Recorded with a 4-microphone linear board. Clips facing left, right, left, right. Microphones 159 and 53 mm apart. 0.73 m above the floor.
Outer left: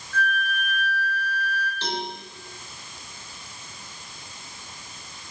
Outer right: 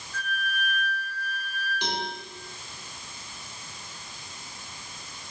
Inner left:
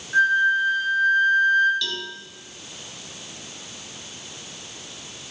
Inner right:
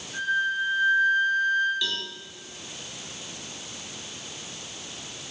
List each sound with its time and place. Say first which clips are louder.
0.1 s a flute: outer left 6 dB, inner left 8 dB; 85° left, 2 m
1.8 s a cowbell: even, inner left 1 dB; 15° right (ahead or behind), 1.1 m